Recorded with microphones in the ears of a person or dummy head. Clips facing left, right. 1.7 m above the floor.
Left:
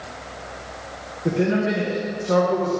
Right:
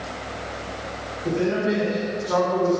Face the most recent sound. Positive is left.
turn(degrees=45)  # may be behind; listen again after turning